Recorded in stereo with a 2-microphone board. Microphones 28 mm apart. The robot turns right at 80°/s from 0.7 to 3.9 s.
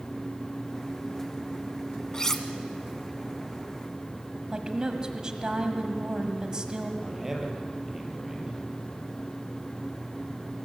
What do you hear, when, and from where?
2.1 s cutlery clinking: 30° left (ahead or behind), 1.3 m; by 2.5 s 5° left (ahead or behind), 1.3 m
4.5 s a woman speaking: 30° right (ahead or behind), 1.8 m
7.0 s a man speaking: 15° right (ahead or behind), 4.5 m